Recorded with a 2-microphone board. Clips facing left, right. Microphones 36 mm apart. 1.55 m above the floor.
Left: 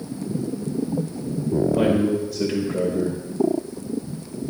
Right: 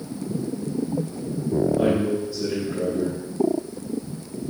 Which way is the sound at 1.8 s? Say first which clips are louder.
Left 2 dB; 75° left (ahead or behind).